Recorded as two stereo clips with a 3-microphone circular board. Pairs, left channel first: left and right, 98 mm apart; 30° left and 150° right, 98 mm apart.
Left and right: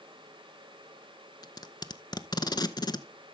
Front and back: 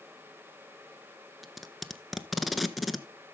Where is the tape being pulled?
120° left, 0.6 m.